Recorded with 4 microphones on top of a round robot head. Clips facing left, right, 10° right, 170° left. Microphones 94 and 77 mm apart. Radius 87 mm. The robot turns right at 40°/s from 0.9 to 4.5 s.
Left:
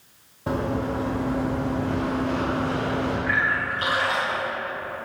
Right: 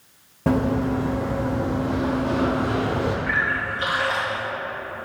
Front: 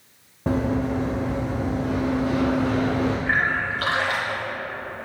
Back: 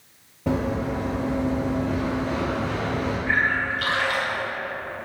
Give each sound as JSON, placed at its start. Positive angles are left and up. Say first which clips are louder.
{"t": 0.5, "sound": "running footsteps", "louder": "right 5 dB, front 2 dB", "azimuth_deg": -75, "distance_m": 2.5}
{"t": 3.3, "sound": "a splash", "louder": "even, even", "azimuth_deg": 20, "distance_m": 2.0}